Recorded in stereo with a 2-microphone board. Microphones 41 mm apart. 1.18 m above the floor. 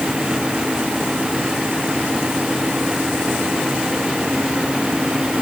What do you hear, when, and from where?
Only background noise.